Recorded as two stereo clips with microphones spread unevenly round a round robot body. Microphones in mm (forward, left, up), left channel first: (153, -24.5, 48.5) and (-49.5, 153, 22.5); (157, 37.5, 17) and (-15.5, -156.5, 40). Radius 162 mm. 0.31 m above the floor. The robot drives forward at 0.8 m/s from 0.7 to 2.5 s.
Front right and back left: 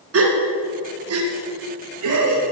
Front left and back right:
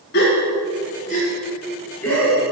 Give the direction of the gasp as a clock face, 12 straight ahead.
8 o'clock.